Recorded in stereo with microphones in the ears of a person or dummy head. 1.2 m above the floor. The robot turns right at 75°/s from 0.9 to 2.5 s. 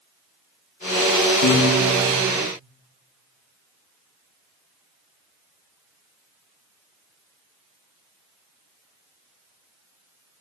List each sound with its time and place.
1.4 s a piano: 115° left, 1.2 m; by 2.3 s 175° right, 1.2 m